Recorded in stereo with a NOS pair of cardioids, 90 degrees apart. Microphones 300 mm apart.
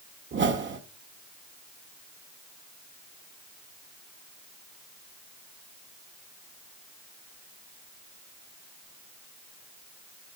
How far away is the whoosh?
About 1.6 m.